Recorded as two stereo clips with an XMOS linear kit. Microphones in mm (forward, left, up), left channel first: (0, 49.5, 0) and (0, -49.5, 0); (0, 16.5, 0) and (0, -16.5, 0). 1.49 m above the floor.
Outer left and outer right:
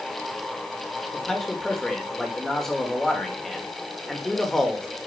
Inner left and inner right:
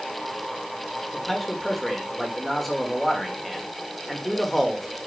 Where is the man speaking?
5° left (ahead or behind), 2.5 m.